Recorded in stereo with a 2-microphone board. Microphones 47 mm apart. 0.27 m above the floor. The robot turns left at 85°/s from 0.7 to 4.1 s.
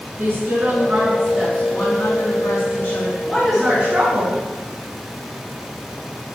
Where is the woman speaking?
125° right, 3.5 m; by 4.5 s 55° right, 3.5 m.